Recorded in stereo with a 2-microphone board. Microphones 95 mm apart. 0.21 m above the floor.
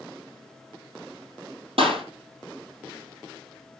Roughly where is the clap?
Right.